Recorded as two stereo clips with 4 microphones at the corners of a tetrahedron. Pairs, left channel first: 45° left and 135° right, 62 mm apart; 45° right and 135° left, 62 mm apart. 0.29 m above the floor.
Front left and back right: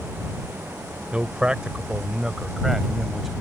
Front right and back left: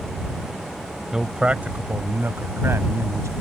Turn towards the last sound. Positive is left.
turn(degrees=140)